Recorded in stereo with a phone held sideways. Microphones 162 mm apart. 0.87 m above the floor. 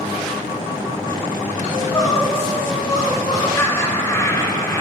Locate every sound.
1.7 s crying: 25° left (ahead or behind), 3 m
3.6 s laughter: 20° left (ahead or behind), 3.5 m